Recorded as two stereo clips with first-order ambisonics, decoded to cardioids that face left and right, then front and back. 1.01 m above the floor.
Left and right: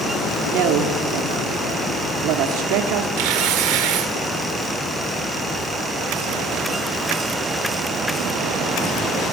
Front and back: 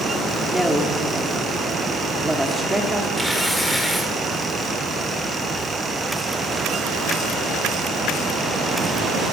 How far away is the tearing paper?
About 2 m.